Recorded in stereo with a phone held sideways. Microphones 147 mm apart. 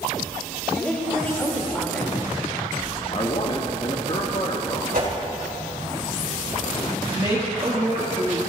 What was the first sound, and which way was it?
A woman speaking, 10° left (ahead or behind).